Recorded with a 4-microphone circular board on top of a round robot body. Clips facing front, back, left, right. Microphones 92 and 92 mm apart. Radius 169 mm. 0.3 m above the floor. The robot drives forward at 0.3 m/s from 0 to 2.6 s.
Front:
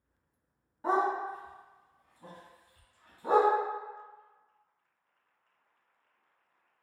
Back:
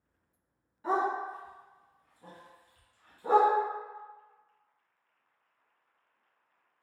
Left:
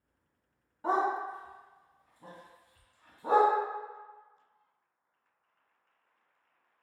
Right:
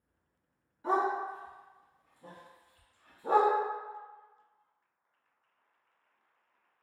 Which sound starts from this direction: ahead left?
A dog barking, at 0.8 s.